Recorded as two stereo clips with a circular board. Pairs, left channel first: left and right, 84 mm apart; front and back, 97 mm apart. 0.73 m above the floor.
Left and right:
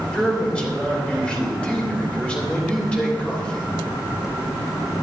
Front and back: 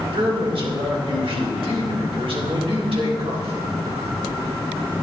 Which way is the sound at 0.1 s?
165° left.